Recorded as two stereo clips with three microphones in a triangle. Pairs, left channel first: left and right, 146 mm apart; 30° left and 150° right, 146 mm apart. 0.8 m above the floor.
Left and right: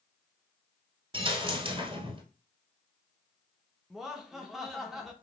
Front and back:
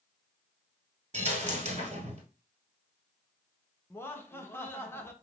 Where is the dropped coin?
130° right, 1.1 m.